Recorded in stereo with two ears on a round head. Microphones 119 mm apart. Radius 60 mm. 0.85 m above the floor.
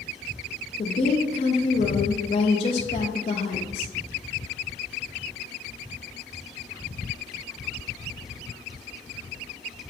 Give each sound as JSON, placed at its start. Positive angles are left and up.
{"t": 0.8, "sound": "a woman speaking", "side_deg": 40, "distance_m": 0.6}